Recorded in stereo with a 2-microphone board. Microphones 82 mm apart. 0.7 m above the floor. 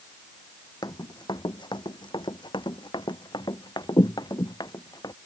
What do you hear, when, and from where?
0.8 s running footsteps: 60° left (ahead or behind); by 5.1 s 55° left (ahead or behind)